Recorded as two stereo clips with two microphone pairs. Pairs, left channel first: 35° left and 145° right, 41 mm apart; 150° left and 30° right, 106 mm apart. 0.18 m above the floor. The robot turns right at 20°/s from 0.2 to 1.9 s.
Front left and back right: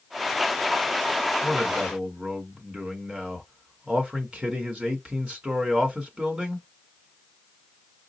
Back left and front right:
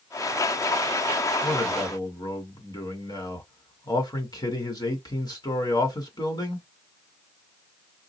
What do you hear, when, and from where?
1.4 s a man speaking: 155° left, 1.7 m; by 6.7 s 165° left, 1.7 m